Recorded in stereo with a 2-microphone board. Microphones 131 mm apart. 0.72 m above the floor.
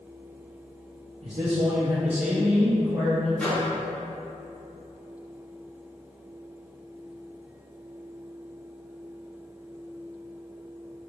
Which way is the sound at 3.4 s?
10° left (ahead or behind).